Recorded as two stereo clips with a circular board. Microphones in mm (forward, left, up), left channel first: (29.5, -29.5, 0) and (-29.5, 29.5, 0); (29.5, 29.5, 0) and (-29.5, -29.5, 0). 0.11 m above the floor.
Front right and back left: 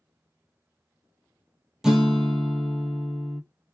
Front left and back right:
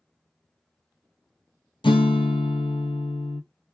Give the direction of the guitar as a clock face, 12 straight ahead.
10 o'clock.